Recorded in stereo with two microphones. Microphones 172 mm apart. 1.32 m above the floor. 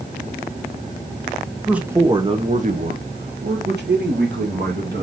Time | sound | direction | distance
1.7 | a man speaking | 5° right (ahead or behind) | 0.9 m